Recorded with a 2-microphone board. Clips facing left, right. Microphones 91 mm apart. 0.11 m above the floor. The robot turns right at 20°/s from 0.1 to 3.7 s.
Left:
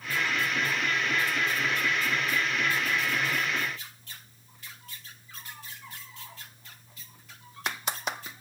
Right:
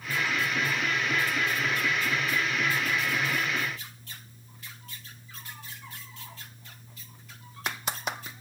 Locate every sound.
Only background noise.